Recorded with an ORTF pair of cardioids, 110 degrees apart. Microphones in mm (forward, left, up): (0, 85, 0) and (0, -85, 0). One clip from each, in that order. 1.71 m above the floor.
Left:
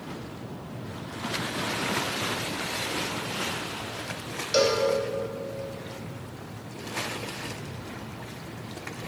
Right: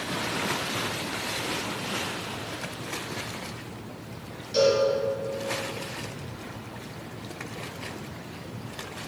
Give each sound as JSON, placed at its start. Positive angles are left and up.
{"t": 4.5, "sound": "a cowbell", "azimuth_deg": 60, "distance_m": 0.8}